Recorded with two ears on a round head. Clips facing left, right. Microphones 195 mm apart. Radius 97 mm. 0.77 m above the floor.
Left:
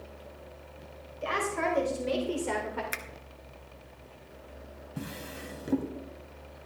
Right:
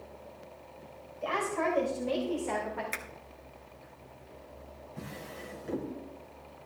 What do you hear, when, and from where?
1.2 s a woman speaking: 30° left (ahead or behind), 3.5 m; by 2.8 s 55° left (ahead or behind), 2.5 m
2.9 s a finger snap: 15° left (ahead or behind), 1.1 m
5.0 s a drawer: 50° left (ahead or behind), 1.8 m